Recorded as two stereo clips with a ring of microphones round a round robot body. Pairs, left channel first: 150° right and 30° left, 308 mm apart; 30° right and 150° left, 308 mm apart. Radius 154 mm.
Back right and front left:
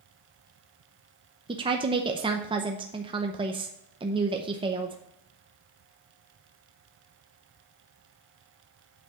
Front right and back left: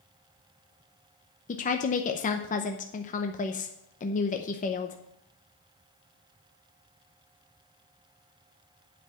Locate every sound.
1.5 s a woman speaking: 20° right, 0.7 m